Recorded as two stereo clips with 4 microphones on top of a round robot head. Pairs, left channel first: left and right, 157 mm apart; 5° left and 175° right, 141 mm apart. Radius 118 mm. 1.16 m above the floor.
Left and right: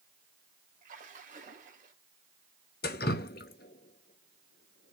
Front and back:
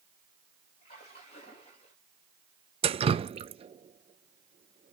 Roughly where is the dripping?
Behind left.